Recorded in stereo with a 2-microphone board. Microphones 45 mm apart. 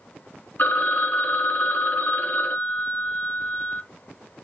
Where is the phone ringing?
45° left (ahead or behind), 0.9 m.